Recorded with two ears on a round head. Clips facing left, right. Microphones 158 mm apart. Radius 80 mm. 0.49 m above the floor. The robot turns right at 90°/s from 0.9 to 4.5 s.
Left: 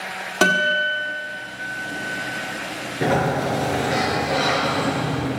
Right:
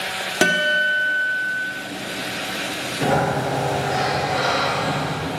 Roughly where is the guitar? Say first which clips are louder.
Even; centre.